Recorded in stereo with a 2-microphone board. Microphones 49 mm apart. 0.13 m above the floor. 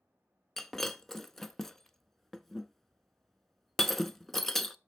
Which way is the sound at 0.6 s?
5° left (ahead or behind).